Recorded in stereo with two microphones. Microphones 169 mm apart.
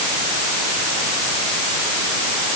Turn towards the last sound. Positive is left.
No sound to turn to.